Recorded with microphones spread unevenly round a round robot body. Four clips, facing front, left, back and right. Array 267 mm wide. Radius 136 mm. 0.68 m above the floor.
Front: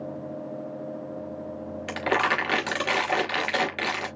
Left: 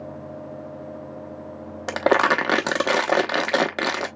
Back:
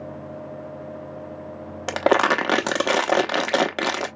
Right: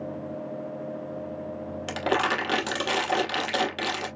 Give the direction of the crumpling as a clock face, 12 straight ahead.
7 o'clock.